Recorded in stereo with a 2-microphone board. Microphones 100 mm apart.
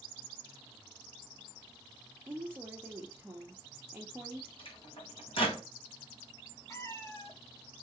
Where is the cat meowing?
25° left (ahead or behind), 2 m.